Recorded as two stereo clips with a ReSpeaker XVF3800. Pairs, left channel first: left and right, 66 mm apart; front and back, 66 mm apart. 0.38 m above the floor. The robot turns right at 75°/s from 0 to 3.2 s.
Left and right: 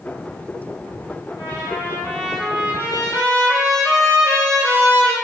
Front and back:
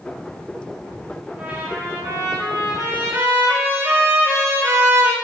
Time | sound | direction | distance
1.4 | a trumpet | 105° left | 4.5 m